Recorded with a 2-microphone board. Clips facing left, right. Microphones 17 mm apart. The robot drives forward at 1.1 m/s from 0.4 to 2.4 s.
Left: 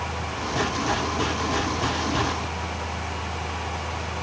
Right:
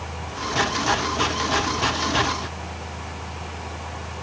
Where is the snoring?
I don't hear snoring.